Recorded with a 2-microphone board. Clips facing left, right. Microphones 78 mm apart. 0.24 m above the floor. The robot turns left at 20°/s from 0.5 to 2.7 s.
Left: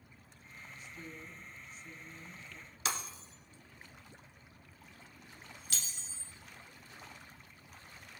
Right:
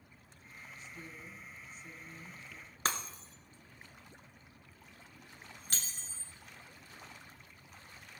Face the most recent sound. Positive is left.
turn(degrees=-45)  # may be behind; listen again after turning